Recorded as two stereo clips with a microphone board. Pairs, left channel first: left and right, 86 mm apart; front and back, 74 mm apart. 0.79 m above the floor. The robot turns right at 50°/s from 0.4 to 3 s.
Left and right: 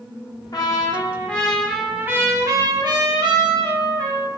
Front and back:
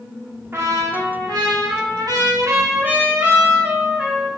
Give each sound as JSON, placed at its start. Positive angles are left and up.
{"t": 0.5, "sound": "a trumpet", "azimuth_deg": 130, "distance_m": 0.5}